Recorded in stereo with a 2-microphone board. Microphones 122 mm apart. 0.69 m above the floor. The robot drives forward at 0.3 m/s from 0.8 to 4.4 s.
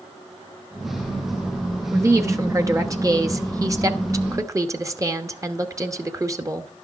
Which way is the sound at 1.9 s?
25° right (ahead or behind).